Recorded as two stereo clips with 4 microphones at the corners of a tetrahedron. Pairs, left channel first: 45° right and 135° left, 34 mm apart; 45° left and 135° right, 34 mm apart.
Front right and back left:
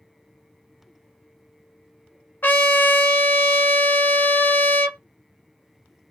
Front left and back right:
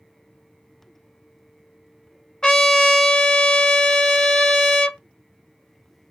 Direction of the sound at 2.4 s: 25° right.